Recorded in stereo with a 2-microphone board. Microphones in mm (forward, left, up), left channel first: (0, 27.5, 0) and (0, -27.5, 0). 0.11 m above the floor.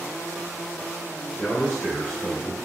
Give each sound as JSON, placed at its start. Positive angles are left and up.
{"t": 1.4, "sound": "a man speaking", "side_deg": 15, "distance_m": 1.3}